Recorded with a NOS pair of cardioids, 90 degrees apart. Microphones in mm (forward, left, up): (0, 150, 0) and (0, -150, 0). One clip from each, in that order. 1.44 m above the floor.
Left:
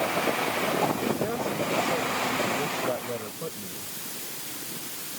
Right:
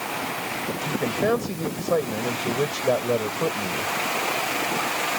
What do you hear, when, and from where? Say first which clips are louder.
0.9 s a man speaking: right 5 dB; 65° right